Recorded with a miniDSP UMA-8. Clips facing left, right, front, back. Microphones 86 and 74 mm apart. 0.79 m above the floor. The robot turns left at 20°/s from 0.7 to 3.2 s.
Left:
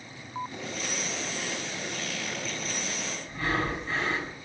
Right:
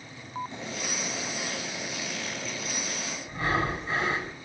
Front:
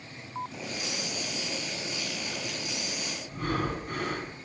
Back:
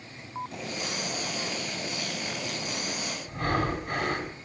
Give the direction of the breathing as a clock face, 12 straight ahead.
5 o'clock.